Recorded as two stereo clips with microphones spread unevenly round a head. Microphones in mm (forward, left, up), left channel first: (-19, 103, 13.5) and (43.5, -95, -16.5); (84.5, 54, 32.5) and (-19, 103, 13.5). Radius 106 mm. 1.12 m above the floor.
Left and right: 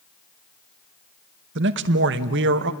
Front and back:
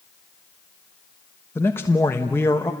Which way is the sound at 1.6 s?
105° right.